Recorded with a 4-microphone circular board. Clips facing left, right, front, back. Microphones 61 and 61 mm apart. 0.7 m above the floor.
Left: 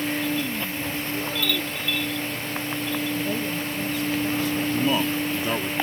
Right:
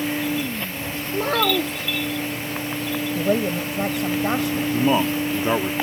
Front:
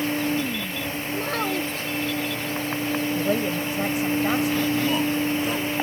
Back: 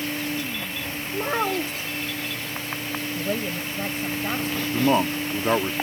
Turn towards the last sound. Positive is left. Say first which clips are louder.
# right 6 dB, back 1 dB
turn(degrees=-145)